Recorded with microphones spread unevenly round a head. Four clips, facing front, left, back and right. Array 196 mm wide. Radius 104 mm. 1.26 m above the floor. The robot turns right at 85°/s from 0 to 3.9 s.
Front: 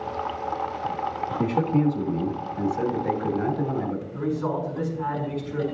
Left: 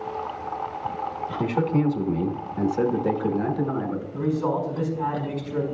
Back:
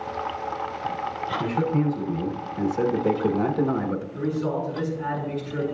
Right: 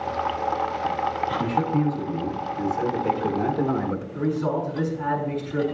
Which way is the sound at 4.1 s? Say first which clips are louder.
Left 1 dB, front 1 dB; 80° left.